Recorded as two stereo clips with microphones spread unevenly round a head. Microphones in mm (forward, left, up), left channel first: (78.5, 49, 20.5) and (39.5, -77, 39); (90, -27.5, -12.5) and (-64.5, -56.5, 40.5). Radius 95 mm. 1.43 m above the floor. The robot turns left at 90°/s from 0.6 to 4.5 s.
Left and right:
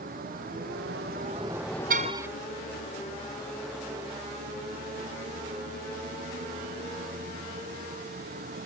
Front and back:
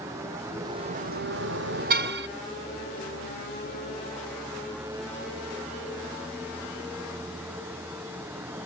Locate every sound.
0.0 s a vehicle: 95° right
1.9 s a car horn: 155° right; by 2.3 s 175° left